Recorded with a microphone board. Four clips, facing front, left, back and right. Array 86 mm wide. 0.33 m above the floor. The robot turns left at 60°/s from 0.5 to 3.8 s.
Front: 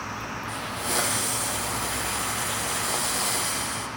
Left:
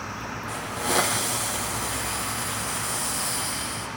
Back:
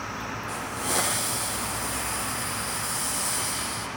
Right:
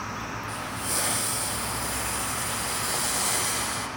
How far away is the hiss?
About 6.5 m.